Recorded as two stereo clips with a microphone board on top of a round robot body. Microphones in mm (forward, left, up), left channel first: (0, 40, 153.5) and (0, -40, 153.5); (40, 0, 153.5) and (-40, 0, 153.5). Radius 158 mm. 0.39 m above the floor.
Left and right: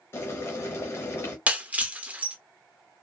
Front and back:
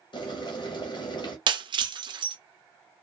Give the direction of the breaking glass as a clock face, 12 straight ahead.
5 o'clock.